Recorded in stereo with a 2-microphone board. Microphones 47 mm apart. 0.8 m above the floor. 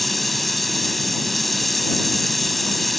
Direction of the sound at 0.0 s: 5° left (ahead or behind).